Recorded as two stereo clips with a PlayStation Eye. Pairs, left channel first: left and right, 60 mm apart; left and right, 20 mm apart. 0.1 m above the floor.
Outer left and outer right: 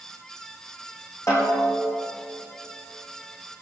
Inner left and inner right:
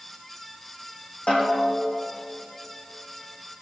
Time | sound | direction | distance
1.3 | a snare drum | 60° left (ahead or behind) | 5 m